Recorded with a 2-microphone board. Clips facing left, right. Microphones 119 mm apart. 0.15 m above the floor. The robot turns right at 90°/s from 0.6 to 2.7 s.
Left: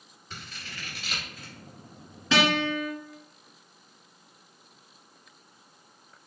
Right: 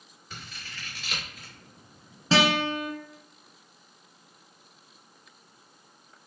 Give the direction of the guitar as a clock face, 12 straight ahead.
5 o'clock.